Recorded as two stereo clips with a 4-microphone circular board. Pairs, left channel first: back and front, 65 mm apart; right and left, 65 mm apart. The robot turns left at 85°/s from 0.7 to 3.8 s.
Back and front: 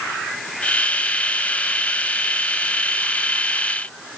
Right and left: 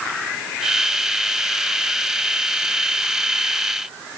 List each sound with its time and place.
Only background noise.